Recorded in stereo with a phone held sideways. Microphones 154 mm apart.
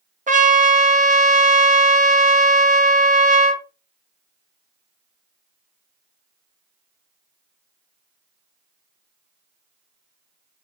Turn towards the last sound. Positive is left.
turn(degrees=-55)  # may be behind; listen again after turning